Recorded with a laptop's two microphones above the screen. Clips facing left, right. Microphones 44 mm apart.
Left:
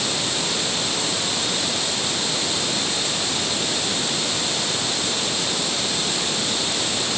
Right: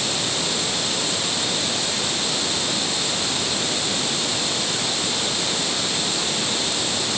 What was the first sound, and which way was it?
Only background noise.